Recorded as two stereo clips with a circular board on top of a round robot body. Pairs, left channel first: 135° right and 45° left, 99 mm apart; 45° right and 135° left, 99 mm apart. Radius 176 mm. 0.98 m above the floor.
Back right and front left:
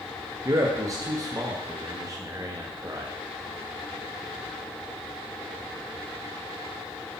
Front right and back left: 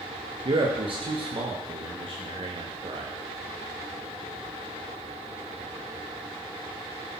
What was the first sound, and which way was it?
A man speaking, 105° left.